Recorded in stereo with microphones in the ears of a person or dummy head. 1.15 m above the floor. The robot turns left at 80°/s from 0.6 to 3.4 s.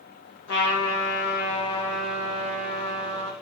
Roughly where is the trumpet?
Behind left.